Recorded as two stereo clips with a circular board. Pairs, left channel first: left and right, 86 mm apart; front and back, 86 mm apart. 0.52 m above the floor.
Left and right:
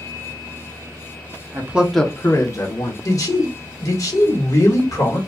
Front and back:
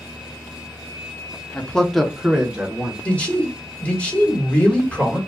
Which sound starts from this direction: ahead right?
A man speaking, at 1.5 s.